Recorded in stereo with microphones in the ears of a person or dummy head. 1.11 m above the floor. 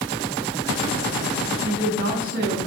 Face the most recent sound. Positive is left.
turn(degrees=-40)  # may be behind; listen again after turning